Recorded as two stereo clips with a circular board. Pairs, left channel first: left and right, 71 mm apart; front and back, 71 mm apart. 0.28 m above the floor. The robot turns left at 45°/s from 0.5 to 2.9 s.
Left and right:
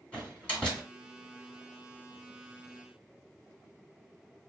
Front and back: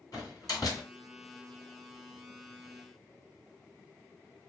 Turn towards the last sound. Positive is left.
turn(degrees=-90)